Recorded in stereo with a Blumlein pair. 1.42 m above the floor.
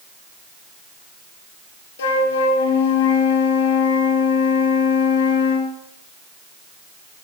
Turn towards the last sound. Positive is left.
turn(degrees=60)